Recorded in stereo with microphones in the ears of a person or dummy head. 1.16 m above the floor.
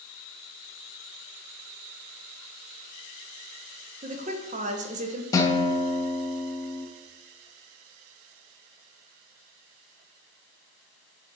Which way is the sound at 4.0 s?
35° right (ahead or behind).